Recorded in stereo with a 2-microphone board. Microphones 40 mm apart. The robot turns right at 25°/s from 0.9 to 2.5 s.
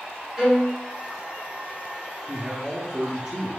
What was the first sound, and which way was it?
A violin, 15° right (ahead or behind).